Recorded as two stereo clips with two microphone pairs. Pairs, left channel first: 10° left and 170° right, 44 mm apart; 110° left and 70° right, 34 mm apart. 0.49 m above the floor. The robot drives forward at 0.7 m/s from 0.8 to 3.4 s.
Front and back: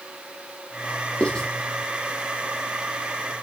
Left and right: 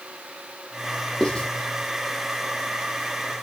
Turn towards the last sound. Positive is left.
turn(degrees=165)